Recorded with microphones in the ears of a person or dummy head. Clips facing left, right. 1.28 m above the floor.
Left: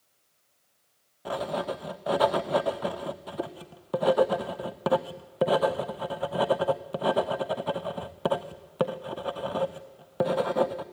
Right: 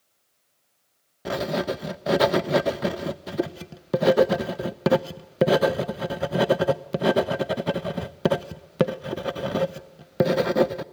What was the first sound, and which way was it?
Writing, 30° right (ahead or behind).